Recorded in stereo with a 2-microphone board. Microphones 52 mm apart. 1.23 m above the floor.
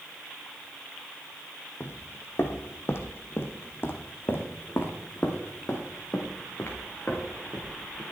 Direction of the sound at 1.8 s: 50° left (ahead or behind).